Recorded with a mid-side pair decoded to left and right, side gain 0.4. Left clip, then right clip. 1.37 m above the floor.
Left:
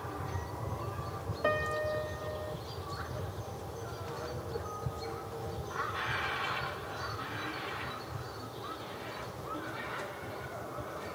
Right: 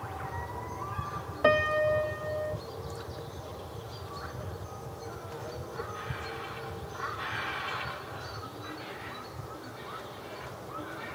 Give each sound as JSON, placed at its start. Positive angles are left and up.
{"t": 1.4, "sound": "a piano", "azimuth_deg": -55, "distance_m": 0.6}